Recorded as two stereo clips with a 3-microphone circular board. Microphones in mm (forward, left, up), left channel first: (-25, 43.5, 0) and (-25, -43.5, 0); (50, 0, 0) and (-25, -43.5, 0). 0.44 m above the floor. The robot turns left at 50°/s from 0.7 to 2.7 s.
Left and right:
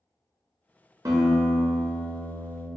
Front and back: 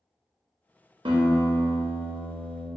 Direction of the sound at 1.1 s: 140° right.